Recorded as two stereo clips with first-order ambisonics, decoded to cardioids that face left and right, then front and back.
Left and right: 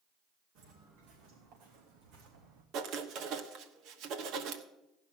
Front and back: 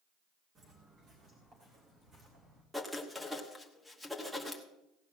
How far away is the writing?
About 1.1 m.